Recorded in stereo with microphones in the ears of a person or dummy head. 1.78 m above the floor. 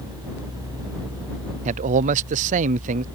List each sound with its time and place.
1.6 s a man speaking: 35° right (ahead or behind)